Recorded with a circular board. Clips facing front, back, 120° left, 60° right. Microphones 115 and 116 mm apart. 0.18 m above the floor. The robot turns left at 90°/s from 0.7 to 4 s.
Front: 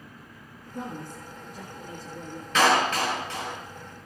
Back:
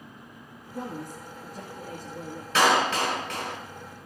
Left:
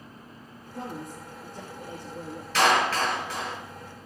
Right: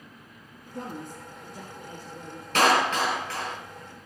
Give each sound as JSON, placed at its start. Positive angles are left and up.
{"t": 0.7, "sound": "a woman speaking", "azimuth_deg": -60, "distance_m": 2.5}
{"t": 2.5, "sound": "a clap", "azimuth_deg": -95, "distance_m": 3.0}